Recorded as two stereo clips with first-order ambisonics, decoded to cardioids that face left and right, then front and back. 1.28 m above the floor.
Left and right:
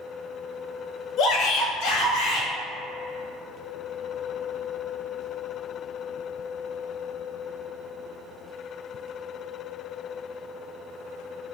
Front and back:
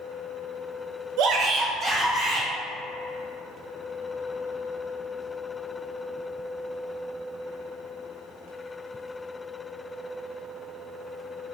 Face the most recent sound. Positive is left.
turn(degrees=95)